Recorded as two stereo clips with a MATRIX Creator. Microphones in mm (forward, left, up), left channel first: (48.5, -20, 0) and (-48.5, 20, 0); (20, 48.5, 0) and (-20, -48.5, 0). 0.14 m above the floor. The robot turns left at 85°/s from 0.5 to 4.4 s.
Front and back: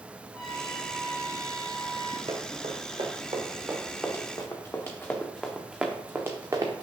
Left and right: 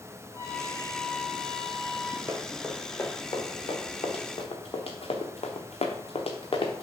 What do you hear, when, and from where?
0.3 s a trumpet: 70° left, 0.8 m; by 2.2 s 70° right, 0.8 m
2.3 s running footsteps: 175° right, 1.9 m; by 6.8 s 110° left, 0.9 m